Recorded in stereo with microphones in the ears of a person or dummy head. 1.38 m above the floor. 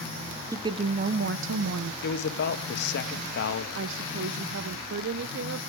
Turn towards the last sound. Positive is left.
turn(degrees=-70)  # may be behind; listen again after turning